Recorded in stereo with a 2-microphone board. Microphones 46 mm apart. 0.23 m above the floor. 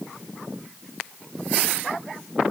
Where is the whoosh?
No whoosh in this recording.